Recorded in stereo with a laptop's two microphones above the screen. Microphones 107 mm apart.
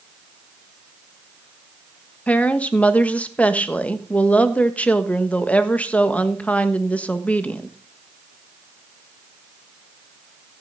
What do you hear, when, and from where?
2.3 s a woman speaking: 15° left (ahead or behind), 1.4 m